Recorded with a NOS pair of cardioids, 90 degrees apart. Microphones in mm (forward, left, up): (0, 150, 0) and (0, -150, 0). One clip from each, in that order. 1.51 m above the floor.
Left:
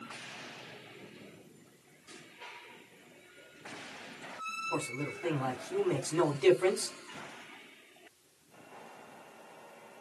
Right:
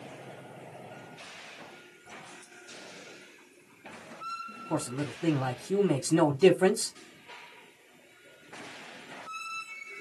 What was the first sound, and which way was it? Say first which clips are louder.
A man speaking: right 2 dB; 70° right.